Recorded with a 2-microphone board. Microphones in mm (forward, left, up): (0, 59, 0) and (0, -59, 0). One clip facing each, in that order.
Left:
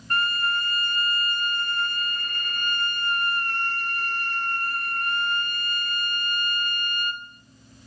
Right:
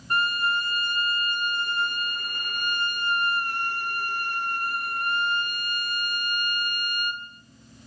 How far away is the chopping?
No chopping in this recording.